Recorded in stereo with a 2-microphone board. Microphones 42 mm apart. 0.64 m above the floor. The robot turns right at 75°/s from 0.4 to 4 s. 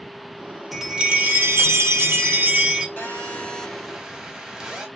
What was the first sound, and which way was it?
A chime, straight behind.